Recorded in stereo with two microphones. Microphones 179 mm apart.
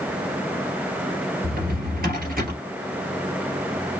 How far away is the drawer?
About 2.5 m.